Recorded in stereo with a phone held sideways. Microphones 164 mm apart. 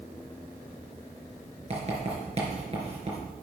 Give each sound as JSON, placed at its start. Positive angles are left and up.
{"t": 1.7, "sound": "writing", "side_deg": -40, "distance_m": 4.5}